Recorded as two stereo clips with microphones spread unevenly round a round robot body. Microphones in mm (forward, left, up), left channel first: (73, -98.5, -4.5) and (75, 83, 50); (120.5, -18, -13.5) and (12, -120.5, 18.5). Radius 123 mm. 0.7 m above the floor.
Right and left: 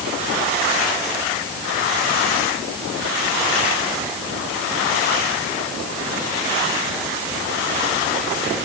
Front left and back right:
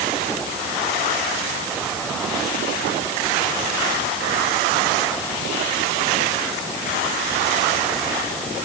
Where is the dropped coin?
I don't hear a dropped coin.